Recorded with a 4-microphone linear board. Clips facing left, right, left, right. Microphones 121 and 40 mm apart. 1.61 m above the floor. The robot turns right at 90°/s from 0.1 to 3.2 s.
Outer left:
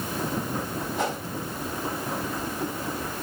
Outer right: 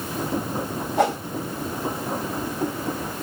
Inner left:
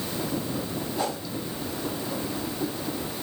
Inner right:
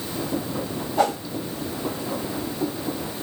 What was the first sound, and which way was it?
A whoosh, 65° right (ahead or behind).